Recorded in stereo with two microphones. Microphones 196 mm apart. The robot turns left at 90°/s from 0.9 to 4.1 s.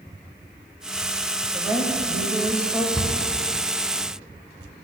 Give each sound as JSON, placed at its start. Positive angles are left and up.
{"t": 1.5, "sound": "a woman speaking", "side_deg": -10, "distance_m": 0.9}
{"t": 3.0, "sound": "a cupboard door", "side_deg": -5, "distance_m": 1.0}